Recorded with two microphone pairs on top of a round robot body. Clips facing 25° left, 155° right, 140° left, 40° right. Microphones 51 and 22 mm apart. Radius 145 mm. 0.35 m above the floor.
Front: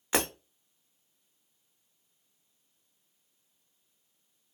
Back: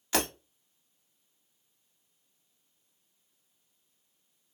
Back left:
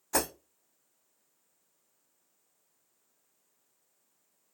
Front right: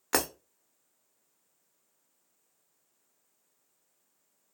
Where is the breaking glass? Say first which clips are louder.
Front 1 dB, front right 2 dB; 45° right, 0.8 m.